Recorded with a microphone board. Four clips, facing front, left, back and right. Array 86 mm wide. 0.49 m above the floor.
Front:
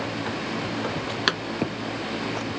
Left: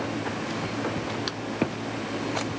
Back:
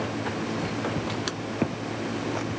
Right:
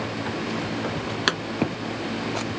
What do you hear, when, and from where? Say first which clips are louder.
1.3 s a pop: right 8 dB, front 6 dB; 45° right